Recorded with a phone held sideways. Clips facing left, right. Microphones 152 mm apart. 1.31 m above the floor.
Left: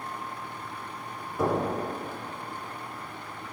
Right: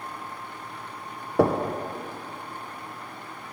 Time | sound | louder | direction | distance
1.4 | knocking | right 5 dB | 65° right (ahead or behind) | 0.6 m